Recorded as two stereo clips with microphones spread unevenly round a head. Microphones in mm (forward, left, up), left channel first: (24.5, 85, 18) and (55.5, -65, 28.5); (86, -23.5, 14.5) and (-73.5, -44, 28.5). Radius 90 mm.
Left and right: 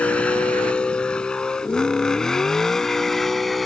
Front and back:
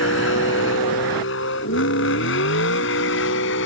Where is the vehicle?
20° left; by 3.7 s 15° left.